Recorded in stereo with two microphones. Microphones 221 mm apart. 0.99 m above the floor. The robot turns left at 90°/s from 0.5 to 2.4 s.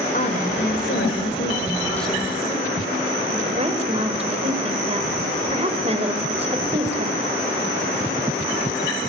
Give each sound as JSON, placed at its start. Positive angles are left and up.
{"t": 0.1, "sound": "a woman speaking", "azimuth_deg": 140, "distance_m": 4.0}